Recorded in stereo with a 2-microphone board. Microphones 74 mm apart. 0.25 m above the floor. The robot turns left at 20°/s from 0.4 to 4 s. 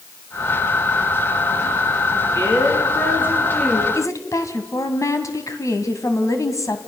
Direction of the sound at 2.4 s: 45° left.